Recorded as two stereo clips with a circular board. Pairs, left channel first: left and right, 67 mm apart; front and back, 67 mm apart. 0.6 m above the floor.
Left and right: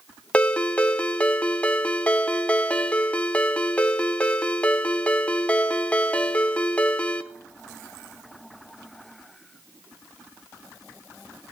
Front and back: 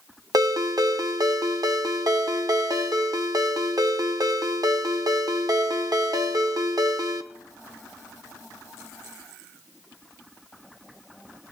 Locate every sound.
0.3 s a ringtone: 160° left, 0.6 m